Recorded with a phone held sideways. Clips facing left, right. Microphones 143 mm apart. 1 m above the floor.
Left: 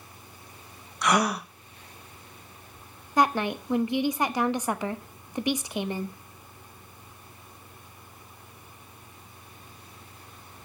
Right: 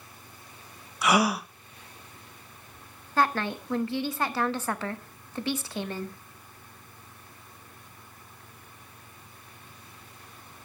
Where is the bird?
I don't hear a bird.